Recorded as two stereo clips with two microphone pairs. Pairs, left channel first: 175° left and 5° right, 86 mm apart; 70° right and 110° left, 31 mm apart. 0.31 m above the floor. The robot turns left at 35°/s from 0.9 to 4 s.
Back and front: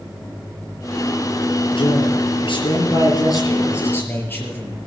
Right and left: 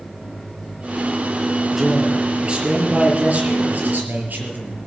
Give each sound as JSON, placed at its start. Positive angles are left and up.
{"t": 1.7, "sound": "a man speaking", "azimuth_deg": -175, "distance_m": 5.5}